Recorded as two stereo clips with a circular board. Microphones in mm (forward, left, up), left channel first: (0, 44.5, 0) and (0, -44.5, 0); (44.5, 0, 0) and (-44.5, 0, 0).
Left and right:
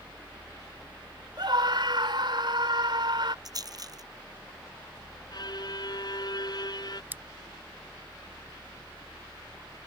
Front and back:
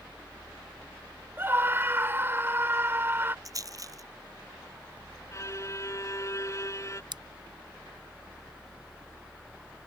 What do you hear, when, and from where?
1.4 s a scream: 115° right
3.5 s a rattle: 135° right
5.3 s a violin: 55° left
7.1 s scissors: 160° right